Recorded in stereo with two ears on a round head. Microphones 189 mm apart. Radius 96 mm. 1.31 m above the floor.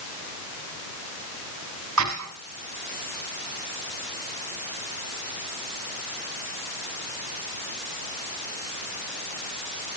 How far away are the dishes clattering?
About 6.5 m.